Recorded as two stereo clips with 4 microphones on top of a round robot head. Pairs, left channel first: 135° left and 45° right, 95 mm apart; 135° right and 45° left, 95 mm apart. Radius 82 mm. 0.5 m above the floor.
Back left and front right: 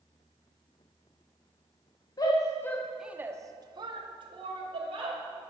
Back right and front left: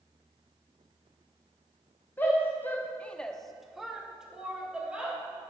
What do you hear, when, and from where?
2.2 s a shout: 160° left, 1.4 m; by 5.2 s 35° right, 3 m